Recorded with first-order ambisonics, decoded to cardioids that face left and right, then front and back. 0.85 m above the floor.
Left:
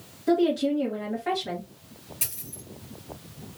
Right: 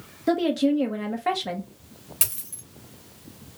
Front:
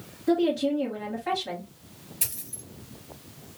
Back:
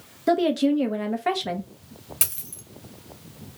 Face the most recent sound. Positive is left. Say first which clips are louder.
# right 4 dB, back 3 dB
turn(degrees=-140)